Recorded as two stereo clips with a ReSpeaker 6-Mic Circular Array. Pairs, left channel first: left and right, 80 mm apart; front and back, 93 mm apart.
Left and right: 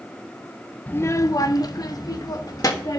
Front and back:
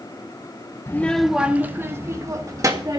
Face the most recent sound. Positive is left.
turn(degrees=130)